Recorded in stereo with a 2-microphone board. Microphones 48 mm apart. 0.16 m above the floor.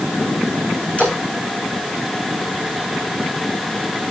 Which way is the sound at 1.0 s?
25° left (ahead or behind).